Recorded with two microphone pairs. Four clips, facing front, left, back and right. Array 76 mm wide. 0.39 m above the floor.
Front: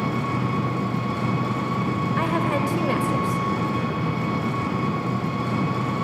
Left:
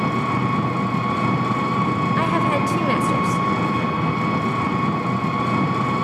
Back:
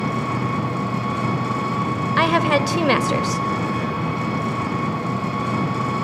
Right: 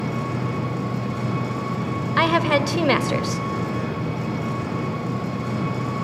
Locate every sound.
0.0 s an engine running: 105° left, 3.5 m
2.2 s a woman speaking: 150° right, 1.5 m